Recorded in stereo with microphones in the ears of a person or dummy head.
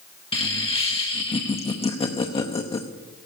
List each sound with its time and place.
0.3 s laughter: 30° left (ahead or behind), 0.7 m